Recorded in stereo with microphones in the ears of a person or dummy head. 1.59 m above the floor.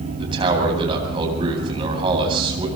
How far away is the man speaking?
About 9 m.